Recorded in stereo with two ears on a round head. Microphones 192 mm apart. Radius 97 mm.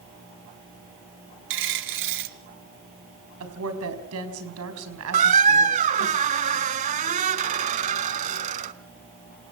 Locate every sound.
1.5 s a dropped coin: 60° right (ahead or behind), 1.4 m
3.4 s a woman speaking: 80° right, 5 m
5.1 s a squeak: 35° right (ahead or behind), 0.6 m